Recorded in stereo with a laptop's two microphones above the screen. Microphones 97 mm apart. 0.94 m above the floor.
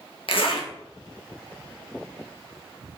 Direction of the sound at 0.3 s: 65° left (ahead or behind).